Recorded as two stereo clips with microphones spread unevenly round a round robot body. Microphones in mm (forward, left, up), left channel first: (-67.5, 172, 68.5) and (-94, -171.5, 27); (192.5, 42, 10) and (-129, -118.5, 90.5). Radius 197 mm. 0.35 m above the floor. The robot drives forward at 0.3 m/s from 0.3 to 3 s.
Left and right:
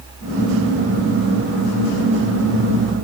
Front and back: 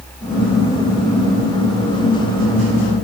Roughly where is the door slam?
No door slam in this recording.